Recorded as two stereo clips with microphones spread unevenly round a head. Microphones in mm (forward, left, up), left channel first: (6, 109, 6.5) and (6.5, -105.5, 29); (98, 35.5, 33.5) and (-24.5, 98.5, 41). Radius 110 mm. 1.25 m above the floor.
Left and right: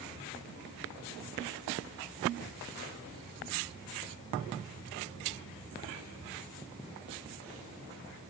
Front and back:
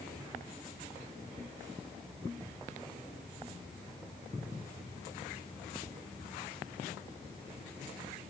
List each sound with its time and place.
Only background noise.